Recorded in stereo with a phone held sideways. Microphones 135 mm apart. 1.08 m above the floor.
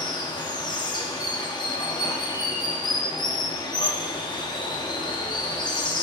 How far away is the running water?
About 1.0 m.